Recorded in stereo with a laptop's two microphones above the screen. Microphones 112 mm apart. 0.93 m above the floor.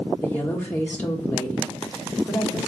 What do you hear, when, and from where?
0.2 s a woman speaking: 15° left (ahead or behind), 1.4 m